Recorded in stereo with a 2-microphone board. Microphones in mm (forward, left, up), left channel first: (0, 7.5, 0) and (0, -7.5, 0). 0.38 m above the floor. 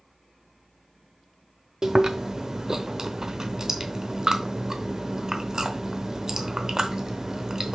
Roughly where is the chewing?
Right.